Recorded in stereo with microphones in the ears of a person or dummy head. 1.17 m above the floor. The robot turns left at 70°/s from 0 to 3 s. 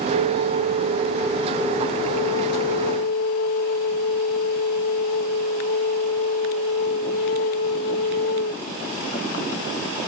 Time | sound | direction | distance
0.1 | a flute | 100° right | 0.7 m